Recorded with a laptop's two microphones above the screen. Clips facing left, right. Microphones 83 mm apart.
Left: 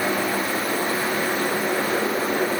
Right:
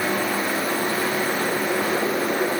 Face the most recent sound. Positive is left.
No sound to turn to.